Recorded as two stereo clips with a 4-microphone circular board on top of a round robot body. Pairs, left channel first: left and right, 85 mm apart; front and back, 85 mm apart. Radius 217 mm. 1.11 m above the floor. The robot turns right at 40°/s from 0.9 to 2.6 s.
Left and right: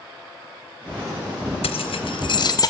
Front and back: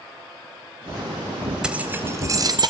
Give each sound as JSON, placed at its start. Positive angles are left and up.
{"t": 1.6, "sound": "keys jangling", "azimuth_deg": 100, "distance_m": 1.3}